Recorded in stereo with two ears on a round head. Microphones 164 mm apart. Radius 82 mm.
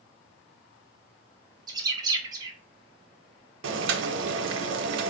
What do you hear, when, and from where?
1.7 s a bird: 20° right (ahead or behind), 0.8 m
3.6 s boiling: 75° right (ahead or behind), 0.6 m